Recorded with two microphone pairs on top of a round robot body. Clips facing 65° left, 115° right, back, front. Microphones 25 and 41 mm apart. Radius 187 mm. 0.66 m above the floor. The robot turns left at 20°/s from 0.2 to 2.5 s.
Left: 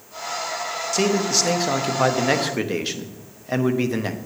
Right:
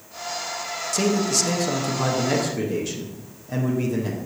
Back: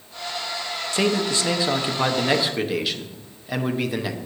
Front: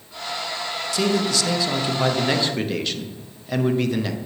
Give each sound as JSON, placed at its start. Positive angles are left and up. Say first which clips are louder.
{"t": 0.9, "sound": "a man speaking", "louder": "left 1 dB, even", "azimuth_deg": 135, "distance_m": 1.1}